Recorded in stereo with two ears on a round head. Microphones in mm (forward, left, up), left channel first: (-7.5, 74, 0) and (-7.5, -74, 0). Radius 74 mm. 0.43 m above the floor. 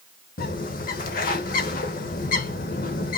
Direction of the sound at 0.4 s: 55° left (ahead or behind).